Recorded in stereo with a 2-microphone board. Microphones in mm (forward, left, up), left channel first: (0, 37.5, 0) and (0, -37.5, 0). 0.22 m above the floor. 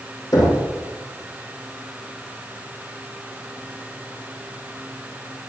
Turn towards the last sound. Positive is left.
turn(degrees=60)  # may be behind; listen again after turning